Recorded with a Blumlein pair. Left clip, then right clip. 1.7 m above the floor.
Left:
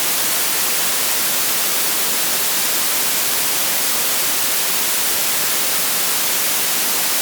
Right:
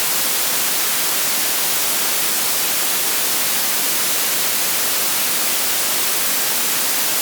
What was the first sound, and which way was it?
Only background noise.